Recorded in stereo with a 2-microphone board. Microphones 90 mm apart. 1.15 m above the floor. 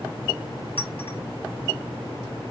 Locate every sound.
0.8 s a clink: 75° left (ahead or behind), 1.3 m